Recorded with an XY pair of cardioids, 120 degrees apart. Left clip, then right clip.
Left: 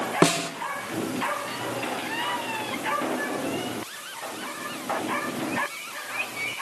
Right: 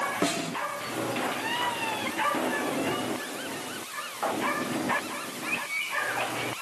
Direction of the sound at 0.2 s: 55° left.